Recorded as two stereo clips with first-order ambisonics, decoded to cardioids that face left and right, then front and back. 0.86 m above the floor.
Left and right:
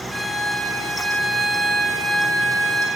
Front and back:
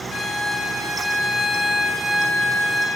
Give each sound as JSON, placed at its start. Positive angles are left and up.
{"t": 0.1, "sound": "a violin", "azimuth_deg": -15, "distance_m": 0.6}